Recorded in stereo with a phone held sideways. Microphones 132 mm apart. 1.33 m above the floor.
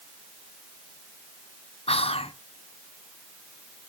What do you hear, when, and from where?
1.9 s whispering: 50° left (ahead or behind), 0.7 m